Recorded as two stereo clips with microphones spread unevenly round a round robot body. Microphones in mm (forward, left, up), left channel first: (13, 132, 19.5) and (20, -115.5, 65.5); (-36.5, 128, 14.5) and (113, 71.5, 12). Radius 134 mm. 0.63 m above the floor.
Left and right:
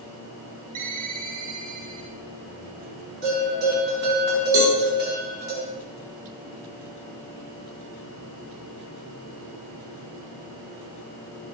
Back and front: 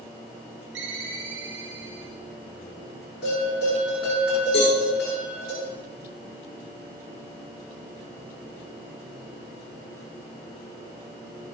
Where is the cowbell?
130° right, 4.5 m.